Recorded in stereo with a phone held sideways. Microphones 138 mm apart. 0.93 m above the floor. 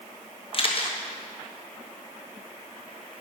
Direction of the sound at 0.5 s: 40° left (ahead or behind).